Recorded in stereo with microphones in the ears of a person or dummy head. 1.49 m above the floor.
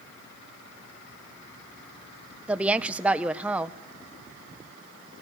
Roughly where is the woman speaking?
Centre.